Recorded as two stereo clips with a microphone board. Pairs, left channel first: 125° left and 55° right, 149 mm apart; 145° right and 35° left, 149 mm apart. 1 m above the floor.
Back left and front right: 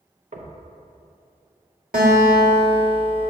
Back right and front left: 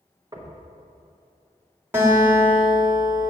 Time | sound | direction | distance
0.3 | knocking | 25° right | 0.8 m
1.9 | a guitar | 40° right | 1.6 m